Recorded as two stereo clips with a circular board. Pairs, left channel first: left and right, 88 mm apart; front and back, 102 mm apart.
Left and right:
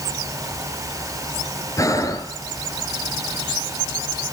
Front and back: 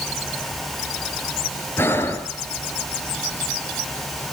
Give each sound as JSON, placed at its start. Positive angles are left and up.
{"t": 1.8, "sound": "breathing", "azimuth_deg": 60, "distance_m": 1.5}